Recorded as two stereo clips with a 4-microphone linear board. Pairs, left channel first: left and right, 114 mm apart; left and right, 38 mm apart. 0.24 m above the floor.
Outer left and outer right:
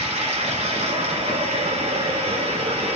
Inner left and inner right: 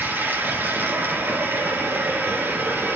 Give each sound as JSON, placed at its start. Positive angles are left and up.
{"t": 0.0, "sound": "running water", "side_deg": -80, "distance_m": 4.0}